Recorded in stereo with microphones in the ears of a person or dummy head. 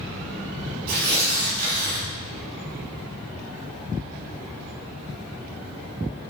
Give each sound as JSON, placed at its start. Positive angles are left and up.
{"t": 0.9, "sound": "tearing paper", "side_deg": -60, "distance_m": 3.5}